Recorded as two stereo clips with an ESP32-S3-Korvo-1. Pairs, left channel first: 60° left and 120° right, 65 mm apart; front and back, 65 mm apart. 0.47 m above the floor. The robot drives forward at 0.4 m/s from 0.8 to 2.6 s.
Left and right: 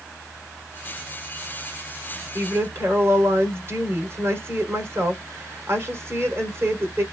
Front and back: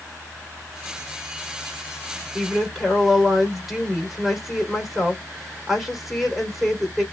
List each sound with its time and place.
2.4 s a woman speaking: 90° right, 1.7 m; by 7.0 s 95° right, 1.7 m